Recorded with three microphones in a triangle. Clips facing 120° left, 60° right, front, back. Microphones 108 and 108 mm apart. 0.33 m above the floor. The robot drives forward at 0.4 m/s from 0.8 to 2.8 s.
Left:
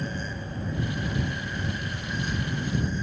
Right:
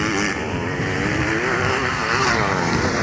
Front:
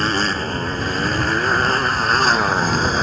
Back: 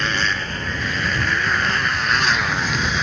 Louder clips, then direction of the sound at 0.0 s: Right 12 dB, front 3 dB; 55° right.